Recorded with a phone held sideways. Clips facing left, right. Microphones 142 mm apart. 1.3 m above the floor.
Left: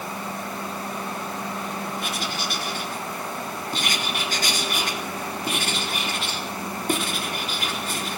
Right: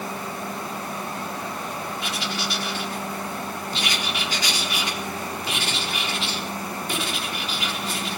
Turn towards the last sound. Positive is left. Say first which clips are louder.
# even
turn(degrees=50)  # may be behind; listen again after turning